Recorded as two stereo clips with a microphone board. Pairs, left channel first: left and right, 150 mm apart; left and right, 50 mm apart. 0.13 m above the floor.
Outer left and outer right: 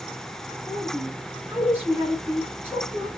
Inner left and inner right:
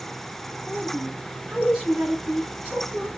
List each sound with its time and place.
0.7 s a woman speaking: 15° right (ahead or behind), 1.2 m